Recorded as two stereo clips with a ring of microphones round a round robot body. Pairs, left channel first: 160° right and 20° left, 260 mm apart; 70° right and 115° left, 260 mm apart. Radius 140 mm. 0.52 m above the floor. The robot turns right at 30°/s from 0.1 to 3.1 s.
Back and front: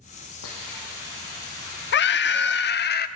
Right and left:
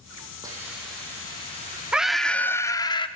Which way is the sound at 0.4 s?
170° right.